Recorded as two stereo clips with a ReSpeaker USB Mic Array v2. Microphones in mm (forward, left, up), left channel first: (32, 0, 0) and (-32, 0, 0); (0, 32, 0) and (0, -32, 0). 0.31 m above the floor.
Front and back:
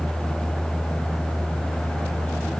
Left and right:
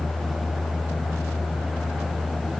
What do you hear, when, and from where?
Only background noise.